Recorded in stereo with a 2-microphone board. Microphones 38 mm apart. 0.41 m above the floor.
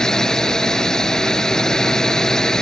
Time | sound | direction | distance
0.0 | a drone | 15° left (ahead or behind) | ?